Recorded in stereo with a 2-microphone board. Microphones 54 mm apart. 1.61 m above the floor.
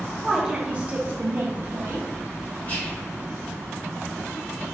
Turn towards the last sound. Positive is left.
turn(degrees=30)  # may be behind; listen again after turning